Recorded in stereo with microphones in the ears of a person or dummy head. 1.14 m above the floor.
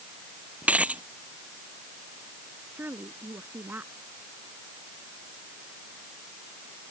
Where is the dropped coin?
Centre (ahead or behind).